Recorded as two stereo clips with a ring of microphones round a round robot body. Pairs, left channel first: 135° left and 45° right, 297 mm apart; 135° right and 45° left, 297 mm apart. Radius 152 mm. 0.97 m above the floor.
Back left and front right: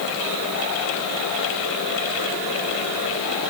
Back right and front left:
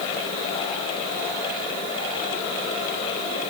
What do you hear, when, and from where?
Only background noise.